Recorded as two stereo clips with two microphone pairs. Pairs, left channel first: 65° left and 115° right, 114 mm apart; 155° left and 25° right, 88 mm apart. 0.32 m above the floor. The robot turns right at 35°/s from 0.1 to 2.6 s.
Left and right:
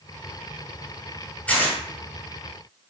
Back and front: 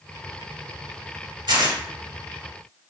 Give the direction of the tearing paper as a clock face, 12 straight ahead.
12 o'clock.